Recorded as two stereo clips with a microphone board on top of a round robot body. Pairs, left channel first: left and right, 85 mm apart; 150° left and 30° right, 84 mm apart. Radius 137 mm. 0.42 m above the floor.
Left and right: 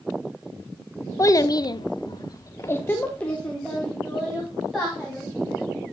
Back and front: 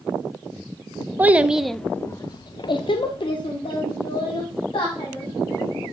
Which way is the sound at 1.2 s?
40° left.